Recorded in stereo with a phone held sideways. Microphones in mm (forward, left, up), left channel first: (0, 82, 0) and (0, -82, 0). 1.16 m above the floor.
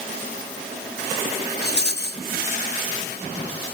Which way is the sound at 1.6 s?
75° left (ahead or behind).